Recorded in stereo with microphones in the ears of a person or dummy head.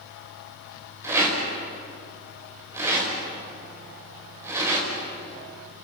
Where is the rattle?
5° right (ahead or behind), 5 m.